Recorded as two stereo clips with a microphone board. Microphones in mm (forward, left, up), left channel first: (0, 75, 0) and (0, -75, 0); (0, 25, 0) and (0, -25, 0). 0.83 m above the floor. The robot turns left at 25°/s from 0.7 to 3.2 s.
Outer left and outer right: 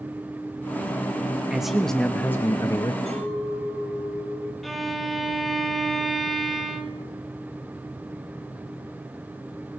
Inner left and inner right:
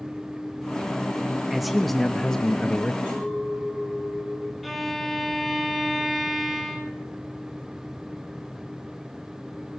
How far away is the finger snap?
I don't hear a finger snap.